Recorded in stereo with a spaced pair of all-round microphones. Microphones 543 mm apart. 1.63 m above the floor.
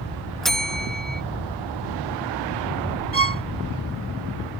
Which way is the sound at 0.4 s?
Centre (ahead or behind).